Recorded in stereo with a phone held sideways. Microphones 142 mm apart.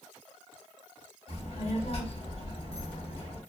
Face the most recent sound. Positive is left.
turn(degrees=50)  # may be behind; listen again after turning